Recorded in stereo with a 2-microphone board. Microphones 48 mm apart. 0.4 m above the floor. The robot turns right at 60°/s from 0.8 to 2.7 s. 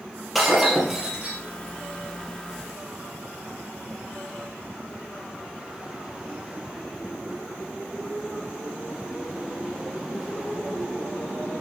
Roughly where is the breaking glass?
Behind.